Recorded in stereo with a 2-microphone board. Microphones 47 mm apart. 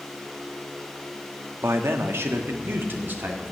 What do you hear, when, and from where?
1.6 s a man speaking: 70° right (ahead or behind), 1.5 m; by 3.5 s 40° right (ahead or behind), 2.5 m